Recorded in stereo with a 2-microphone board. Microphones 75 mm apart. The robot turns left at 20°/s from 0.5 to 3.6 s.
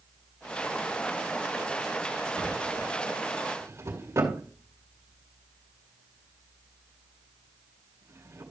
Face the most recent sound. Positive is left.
turn(degrees=-40)  # may be behind; listen again after turning